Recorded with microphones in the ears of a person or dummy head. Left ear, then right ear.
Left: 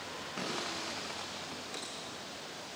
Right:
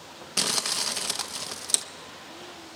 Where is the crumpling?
75° right (ahead or behind), 0.6 m.